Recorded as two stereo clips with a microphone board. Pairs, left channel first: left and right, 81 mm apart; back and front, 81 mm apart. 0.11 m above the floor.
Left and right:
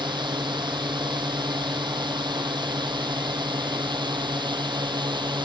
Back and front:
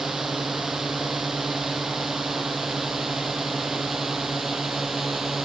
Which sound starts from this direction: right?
A drone, at 0.0 s.